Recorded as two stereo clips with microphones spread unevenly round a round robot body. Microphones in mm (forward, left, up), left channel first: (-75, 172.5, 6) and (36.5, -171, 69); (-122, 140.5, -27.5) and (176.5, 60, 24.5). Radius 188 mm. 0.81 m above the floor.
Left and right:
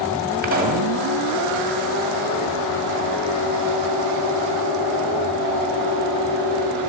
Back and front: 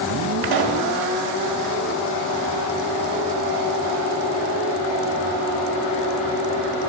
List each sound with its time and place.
0.4 s a pop: straight ahead, 1.8 m